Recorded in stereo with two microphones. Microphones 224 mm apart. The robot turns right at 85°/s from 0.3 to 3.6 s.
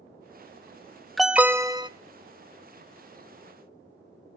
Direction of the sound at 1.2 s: Centre (ahead or behind).